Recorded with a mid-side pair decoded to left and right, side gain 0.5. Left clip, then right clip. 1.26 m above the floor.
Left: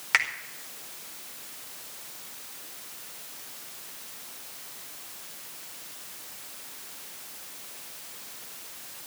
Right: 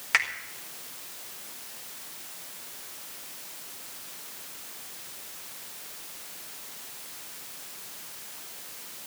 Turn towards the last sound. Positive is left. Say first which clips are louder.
# left 1 dB
turn(degrees=15)